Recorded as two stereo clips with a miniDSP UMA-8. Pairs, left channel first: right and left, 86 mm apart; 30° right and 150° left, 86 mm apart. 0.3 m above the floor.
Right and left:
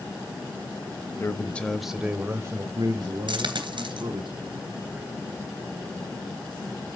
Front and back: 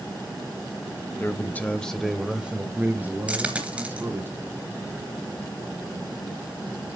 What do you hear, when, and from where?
1.2 s a man speaking: 65° right, 1.1 m; by 4.3 s 90° left, 2.5 m
3.3 s a dropped coin: 75° left, 2.5 m